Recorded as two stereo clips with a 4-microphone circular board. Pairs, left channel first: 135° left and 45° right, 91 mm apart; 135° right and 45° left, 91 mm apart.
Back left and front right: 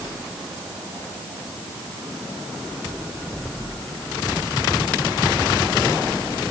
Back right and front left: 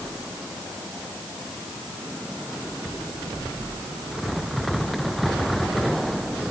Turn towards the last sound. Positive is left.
No sound to turn to.